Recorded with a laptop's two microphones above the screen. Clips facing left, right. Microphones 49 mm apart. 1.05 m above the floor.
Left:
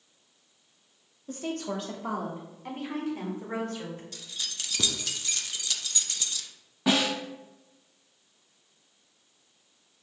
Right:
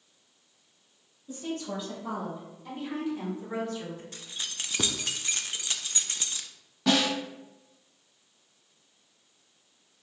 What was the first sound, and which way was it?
A woman speaking, 60° left (ahead or behind).